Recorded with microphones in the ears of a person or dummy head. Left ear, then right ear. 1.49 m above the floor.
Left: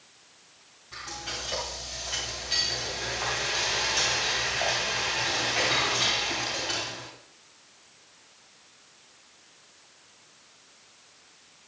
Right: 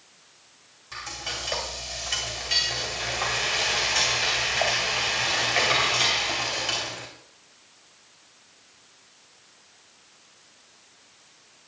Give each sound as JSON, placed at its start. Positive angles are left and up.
{"t": 0.9, "sound": "frying", "side_deg": -40, "distance_m": 2.5}